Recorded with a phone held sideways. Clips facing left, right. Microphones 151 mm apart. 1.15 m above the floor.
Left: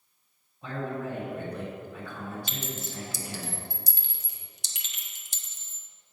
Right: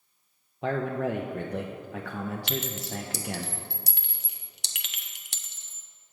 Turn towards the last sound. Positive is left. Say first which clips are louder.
# right 5 dB
turn(degrees=-70)  # may be behind; listen again after turning